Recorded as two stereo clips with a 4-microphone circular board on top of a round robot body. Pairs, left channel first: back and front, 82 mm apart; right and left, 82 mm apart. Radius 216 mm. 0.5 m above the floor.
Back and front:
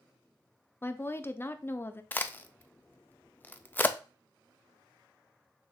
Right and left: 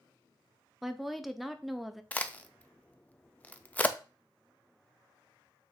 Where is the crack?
140° right, 0.7 m.